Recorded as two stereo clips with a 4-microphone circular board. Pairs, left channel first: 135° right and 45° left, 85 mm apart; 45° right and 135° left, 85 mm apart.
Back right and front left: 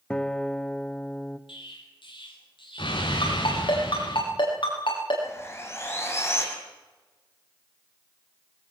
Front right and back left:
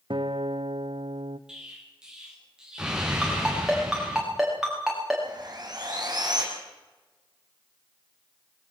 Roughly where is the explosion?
Behind right.